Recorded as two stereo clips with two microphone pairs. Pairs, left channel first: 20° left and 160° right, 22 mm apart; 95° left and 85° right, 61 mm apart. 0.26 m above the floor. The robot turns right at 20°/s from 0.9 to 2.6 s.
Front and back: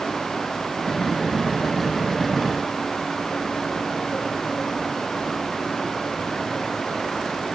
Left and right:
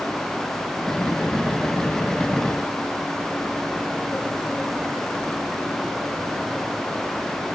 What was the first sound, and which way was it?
Only background noise.